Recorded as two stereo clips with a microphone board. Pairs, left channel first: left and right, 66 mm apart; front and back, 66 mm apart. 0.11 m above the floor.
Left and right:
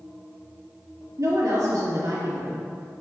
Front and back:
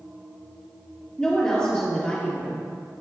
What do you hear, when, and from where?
1.2 s a woman speaking: 75° right, 2 m